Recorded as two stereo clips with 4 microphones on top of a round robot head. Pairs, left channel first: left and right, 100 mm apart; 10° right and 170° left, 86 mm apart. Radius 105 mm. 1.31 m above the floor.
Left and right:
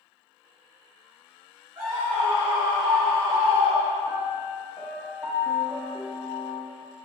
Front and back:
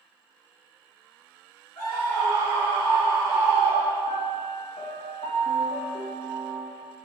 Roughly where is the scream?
Ahead right.